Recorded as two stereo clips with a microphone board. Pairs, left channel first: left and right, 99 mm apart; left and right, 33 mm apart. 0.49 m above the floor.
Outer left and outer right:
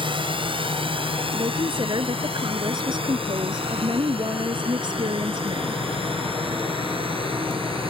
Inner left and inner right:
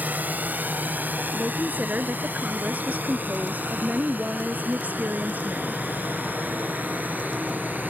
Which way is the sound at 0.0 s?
60° right (ahead or behind).